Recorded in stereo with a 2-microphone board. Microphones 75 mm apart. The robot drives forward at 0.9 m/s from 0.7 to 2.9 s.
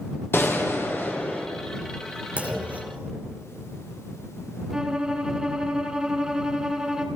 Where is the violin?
10° right (ahead or behind), 1.9 m.